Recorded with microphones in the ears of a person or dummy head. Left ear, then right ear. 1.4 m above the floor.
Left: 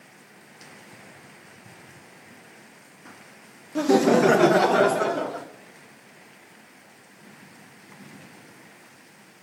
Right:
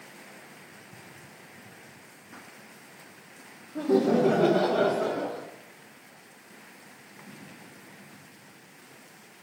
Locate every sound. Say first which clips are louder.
3.8 s laughter: left 5 dB; 80° left, 0.7 m; by 5.5 s 50° left (ahead or behind), 1.8 m